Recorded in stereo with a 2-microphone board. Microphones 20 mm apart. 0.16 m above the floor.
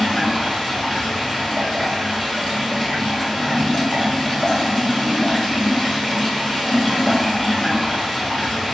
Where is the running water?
15° left (ahead or behind), 1.6 m.